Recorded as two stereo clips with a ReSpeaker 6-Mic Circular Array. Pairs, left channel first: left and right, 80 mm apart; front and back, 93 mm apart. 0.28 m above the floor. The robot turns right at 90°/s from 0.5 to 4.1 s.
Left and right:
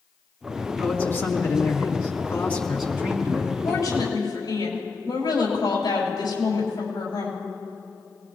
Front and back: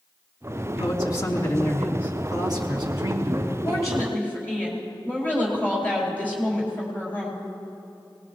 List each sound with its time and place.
0.8 s a man speaking: straight ahead, 3 m; by 3.5 s 110° right, 3 m
3.6 s a woman speaking: 30° left, 5.5 m; by 7.4 s 70° left, 5.5 m